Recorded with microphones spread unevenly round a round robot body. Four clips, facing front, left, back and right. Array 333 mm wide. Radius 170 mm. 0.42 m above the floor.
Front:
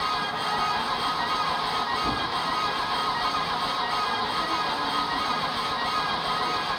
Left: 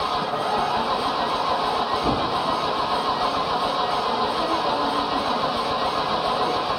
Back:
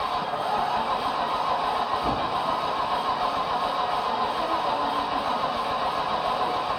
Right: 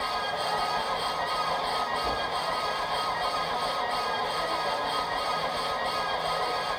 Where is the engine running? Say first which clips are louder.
Left 6 dB, back 1 dB; 95° left.